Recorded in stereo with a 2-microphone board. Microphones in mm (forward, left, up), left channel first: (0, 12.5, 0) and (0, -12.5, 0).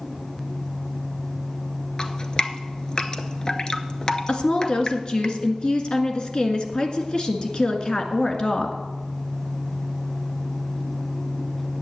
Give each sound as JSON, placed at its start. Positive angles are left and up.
{"t": 2.0, "sound": "dripping", "side_deg": 35, "distance_m": 0.8}
{"t": 4.3, "sound": "a woman speaking", "side_deg": 40, "distance_m": 1.6}